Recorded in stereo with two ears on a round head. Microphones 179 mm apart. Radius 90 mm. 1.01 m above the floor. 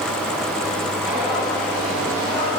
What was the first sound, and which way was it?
Footsteps, 10° right (ahead or behind).